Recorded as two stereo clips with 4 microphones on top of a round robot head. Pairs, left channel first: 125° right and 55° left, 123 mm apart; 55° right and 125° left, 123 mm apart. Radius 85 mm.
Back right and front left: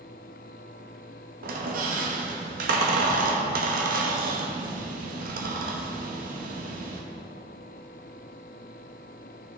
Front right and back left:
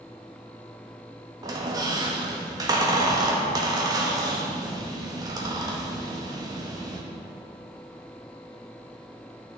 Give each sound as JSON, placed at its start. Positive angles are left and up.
{"t": 1.4, "sound": "a squeak", "azimuth_deg": 65, "distance_m": 0.9}